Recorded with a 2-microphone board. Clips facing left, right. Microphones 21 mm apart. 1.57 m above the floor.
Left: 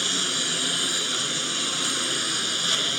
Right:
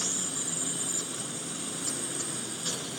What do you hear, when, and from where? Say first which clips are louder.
0.0 s a lawn mower: left 9 dB; 60° left (ahead or behind)